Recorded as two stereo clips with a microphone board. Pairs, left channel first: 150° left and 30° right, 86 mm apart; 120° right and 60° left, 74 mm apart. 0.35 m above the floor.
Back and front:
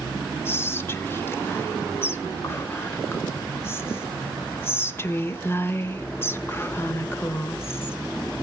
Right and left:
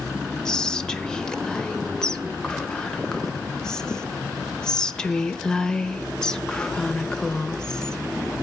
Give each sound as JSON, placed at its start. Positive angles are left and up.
{"t": 0.5, "sound": "whispering", "azimuth_deg": 170, "distance_m": 0.9}